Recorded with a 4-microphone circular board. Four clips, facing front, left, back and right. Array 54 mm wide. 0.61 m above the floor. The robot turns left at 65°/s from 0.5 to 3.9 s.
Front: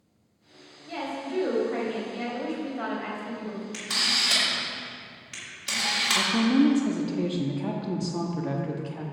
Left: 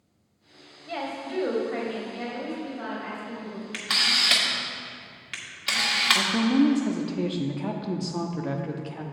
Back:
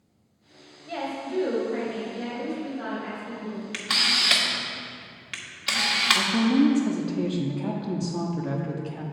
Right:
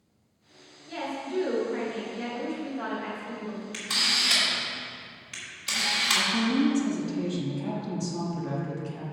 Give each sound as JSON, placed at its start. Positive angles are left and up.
{"t": 0.9, "sound": "a woman speaking", "azimuth_deg": 125, "distance_m": 2.5}
{"t": 3.7, "sound": "a camera shutter", "azimuth_deg": 150, "distance_m": 1.4}
{"t": 6.2, "sound": "a woman speaking", "azimuth_deg": 80, "distance_m": 0.6}